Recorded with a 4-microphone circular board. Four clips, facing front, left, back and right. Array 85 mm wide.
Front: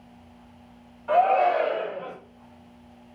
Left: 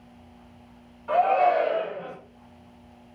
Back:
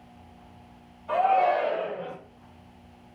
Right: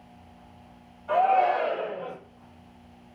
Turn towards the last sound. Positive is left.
turn(degrees=50)